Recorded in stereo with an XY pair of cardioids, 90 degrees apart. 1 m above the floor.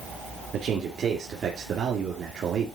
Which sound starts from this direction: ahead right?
A man speaking, at 0.5 s.